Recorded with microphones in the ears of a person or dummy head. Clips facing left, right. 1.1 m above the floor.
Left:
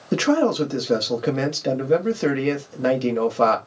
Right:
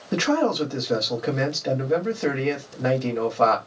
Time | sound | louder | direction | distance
0.1 | a man speaking | left 3 dB | 40° left (ahead or behind) | 1.3 m